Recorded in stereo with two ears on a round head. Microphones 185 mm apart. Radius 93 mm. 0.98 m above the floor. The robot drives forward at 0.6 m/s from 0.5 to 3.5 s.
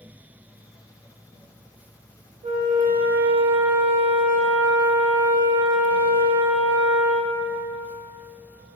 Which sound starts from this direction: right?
A flute, at 2.4 s.